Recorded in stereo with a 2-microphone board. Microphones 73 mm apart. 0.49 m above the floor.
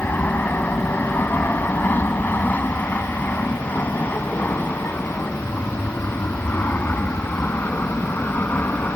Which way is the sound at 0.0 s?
25° left (ahead or behind).